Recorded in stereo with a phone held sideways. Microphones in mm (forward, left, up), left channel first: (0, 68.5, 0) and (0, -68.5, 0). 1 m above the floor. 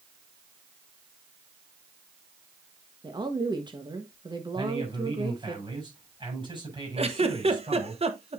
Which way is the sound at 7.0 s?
45° right (ahead or behind).